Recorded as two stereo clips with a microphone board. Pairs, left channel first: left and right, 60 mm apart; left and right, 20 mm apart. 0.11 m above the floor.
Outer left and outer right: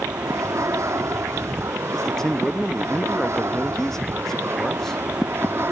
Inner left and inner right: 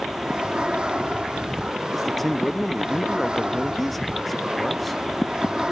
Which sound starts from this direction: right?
An aircraft, at 0.0 s.